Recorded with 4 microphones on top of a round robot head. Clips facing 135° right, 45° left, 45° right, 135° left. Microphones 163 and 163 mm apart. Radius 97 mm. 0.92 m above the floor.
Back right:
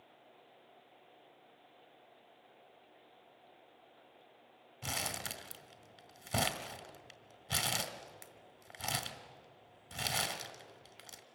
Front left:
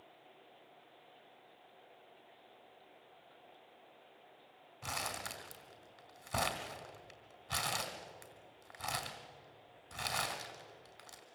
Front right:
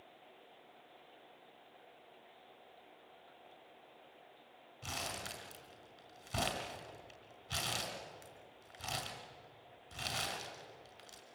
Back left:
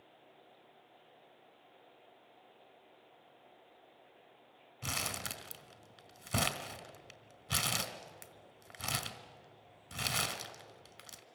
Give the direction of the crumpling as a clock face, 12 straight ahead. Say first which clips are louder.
Back right 1 dB, back left 2 dB; 7 o'clock.